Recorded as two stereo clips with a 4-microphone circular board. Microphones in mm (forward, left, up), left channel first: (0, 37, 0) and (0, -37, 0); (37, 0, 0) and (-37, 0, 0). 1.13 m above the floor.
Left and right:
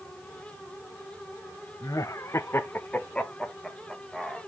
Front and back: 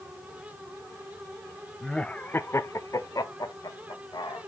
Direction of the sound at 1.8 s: 85° left.